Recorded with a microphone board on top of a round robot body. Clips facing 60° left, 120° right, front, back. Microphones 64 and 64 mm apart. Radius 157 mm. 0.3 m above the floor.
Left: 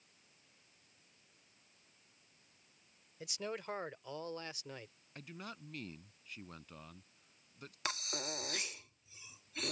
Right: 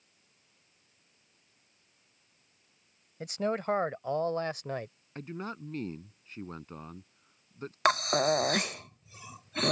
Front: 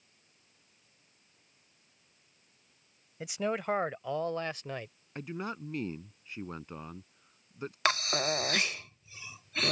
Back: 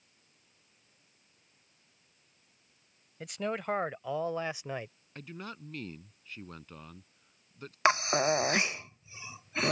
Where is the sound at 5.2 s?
65° right.